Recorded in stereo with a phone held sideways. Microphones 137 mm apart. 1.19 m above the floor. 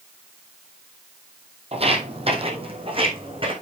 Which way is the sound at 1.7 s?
45° right (ahead or behind).